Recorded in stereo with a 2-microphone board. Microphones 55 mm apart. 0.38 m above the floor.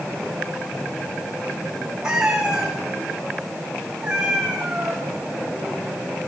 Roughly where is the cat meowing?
Centre.